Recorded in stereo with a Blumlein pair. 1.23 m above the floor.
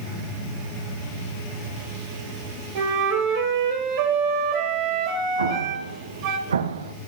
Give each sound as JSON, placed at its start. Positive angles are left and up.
{"t": 2.8, "sound": "a flute", "azimuth_deg": -45, "distance_m": 2.0}
{"t": 5.4, "sound": "an explosion", "azimuth_deg": -70, "distance_m": 0.7}